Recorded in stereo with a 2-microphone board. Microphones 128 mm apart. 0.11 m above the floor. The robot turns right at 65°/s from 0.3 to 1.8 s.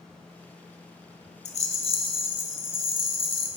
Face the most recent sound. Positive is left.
turn(degrees=50)  # may be behind; listen again after turning